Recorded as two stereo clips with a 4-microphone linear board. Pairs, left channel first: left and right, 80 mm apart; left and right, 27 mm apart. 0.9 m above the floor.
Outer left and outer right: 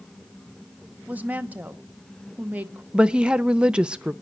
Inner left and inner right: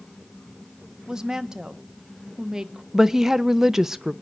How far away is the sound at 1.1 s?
About 0.9 m.